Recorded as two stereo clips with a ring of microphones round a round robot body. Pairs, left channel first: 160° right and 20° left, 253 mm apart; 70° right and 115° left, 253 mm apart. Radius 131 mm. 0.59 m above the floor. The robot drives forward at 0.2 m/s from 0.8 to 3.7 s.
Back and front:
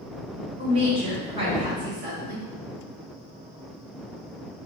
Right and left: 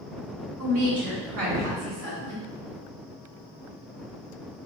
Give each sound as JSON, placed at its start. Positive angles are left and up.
{"t": 0.6, "sound": "a woman speaking", "azimuth_deg": 80, "distance_m": 2.0}